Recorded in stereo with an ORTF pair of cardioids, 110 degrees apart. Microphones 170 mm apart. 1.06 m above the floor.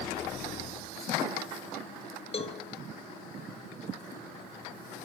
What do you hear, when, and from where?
2.3 s a cowbell: 35° left, 2 m